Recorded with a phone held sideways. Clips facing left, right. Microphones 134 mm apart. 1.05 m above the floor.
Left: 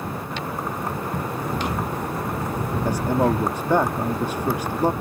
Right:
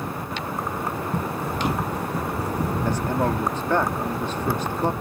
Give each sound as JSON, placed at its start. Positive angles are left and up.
{"t": 1.1, "sound": "running footsteps", "side_deg": -30}
{"t": 2.9, "sound": "a man speaking", "side_deg": 10}